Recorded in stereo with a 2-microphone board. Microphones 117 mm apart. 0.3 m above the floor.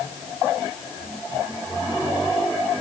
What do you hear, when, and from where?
Only background noise.